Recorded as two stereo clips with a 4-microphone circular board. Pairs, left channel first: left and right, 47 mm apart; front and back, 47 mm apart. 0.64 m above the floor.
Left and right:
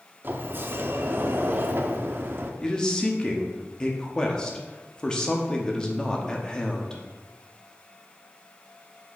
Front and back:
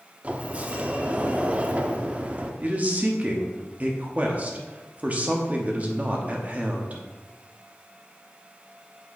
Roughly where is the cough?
No cough in this recording.